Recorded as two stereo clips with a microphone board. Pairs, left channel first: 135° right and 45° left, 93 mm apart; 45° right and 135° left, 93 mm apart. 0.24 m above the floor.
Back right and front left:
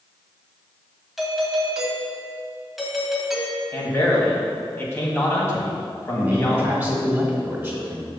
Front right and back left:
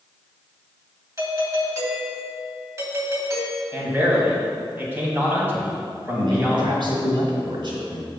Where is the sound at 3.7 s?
175° right, 1.8 m.